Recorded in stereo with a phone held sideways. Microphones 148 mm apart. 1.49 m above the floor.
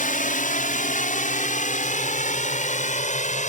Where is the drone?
60° left (ahead or behind); by 3.5 s 55° left (ahead or behind).